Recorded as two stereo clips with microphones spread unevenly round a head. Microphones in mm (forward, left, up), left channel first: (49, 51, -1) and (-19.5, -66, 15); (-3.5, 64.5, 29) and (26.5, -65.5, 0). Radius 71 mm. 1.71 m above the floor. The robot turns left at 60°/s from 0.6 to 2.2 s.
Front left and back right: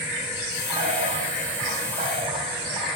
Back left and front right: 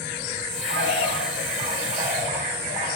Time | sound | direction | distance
0.7 | a bird | 70° right | 2.5 m